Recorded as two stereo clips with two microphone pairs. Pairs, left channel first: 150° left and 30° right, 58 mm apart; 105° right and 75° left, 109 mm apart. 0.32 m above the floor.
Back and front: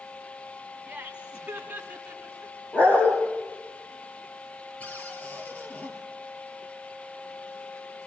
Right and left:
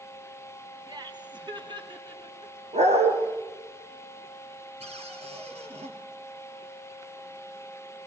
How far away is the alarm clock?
I don't hear an alarm clock.